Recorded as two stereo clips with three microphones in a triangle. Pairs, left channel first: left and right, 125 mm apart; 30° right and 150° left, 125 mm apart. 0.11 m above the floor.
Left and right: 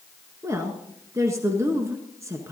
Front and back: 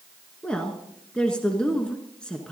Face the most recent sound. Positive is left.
turn(degrees=-100)